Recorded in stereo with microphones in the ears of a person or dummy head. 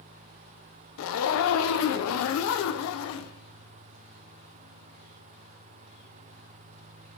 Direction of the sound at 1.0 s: 75° left (ahead or behind).